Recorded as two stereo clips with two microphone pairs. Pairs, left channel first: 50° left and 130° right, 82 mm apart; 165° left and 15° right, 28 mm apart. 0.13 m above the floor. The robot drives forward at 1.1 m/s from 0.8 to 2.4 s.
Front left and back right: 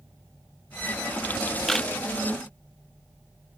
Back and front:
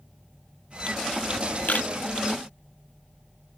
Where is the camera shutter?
140° left.